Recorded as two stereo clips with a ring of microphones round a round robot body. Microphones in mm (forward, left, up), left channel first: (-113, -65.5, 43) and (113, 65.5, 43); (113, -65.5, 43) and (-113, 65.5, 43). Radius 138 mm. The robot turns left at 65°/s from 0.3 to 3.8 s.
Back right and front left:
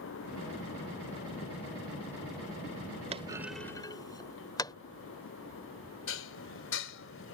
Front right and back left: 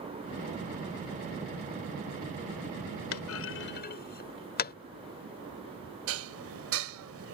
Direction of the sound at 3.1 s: 30° right.